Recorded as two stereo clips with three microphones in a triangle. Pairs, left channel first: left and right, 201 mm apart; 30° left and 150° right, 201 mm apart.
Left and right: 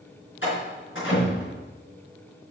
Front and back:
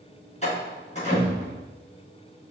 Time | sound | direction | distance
0.4 | a door slam | 85° left | 4.5 m